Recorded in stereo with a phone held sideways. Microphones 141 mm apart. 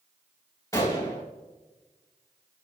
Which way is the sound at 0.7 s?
25° left (ahead or behind).